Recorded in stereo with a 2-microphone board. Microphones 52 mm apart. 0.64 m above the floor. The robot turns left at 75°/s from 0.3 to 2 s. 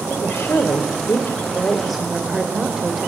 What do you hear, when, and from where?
0.1 s a woman speaking: 120° left, 2.5 m; by 3.1 s 5° right, 2.5 m